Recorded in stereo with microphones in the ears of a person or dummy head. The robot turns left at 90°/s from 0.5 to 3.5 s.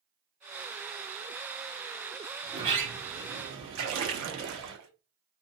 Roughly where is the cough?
No cough in this recording.